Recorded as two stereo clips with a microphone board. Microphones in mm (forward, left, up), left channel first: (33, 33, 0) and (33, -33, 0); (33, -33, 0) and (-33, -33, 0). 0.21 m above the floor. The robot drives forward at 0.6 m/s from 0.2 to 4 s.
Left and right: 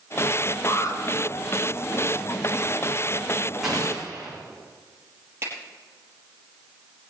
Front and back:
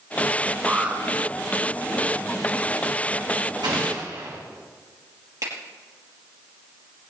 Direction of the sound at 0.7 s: 110° left.